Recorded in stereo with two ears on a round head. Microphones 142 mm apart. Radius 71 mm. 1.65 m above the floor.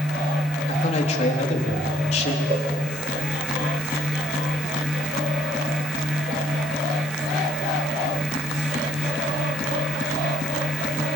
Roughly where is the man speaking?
Left.